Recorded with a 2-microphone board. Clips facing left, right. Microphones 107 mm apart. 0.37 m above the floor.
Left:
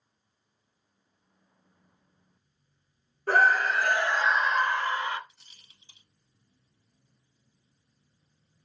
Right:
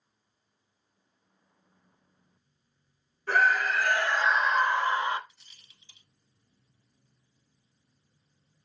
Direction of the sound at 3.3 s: 40° left (ahead or behind).